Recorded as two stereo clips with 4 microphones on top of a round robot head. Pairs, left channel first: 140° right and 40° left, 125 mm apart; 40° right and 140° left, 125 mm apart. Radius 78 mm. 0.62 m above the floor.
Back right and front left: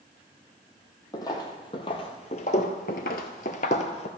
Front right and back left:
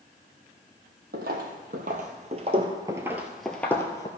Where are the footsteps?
155° left, 1.5 m; by 4.1 s 105° right, 1.0 m.